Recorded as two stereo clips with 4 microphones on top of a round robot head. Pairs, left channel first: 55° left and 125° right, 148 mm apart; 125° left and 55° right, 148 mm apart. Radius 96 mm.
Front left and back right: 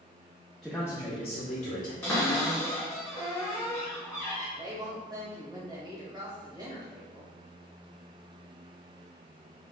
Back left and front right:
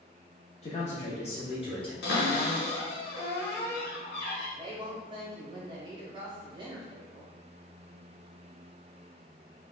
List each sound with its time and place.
0.6 s a man speaking: 145° left, 0.9 m; by 1.9 s 75° left, 1.7 m
2.0 s a cupboard door: 125° left, 1.4 m
4.6 s a woman speaking: 85° right, 1.2 m